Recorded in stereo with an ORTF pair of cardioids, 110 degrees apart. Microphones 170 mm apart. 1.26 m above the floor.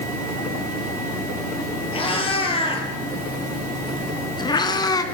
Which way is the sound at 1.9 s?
30° left.